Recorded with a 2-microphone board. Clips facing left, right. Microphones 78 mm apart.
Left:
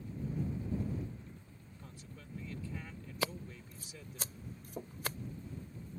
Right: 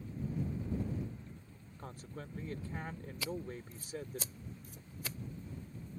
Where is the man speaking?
50° right (ahead or behind).